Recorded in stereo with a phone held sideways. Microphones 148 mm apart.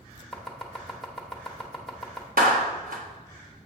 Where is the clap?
70° right (ahead or behind), 1.1 m.